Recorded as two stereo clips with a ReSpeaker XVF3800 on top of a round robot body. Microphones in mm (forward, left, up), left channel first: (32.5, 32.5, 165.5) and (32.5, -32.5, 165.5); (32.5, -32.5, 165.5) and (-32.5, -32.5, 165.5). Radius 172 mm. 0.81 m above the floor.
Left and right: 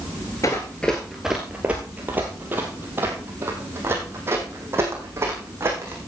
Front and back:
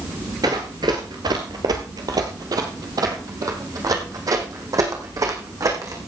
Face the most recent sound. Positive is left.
turn(degrees=-145)